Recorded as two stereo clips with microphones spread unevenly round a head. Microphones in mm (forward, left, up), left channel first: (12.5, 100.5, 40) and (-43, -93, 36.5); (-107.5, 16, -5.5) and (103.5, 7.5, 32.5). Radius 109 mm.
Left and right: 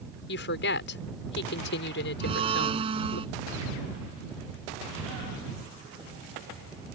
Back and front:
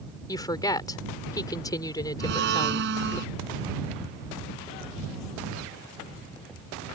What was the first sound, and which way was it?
A woman speaking, 105° left.